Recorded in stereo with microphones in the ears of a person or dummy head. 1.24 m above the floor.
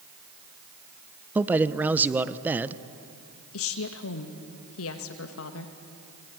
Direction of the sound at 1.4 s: 10° right (ahead or behind).